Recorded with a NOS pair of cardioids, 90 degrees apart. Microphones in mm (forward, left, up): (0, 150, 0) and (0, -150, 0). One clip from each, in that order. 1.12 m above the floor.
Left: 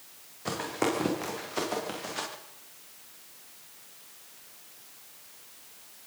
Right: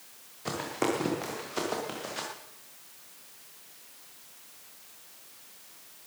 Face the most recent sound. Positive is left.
turn(degrees=0)